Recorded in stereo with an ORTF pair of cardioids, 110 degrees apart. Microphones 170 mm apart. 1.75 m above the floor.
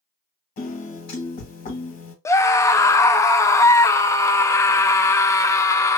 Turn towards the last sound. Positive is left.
turn(degrees=15)